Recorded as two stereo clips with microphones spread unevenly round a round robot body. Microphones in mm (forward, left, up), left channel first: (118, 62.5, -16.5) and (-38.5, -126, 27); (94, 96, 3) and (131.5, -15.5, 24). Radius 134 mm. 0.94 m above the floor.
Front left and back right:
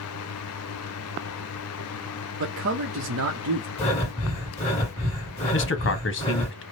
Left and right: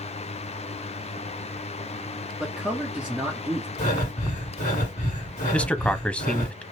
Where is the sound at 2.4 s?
160° right, 0.7 m.